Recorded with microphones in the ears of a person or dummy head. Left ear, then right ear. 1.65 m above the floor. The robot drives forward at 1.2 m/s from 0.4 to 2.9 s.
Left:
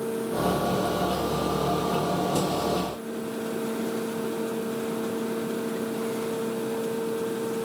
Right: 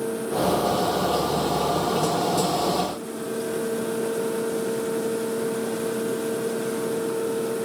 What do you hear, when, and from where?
Only background noise.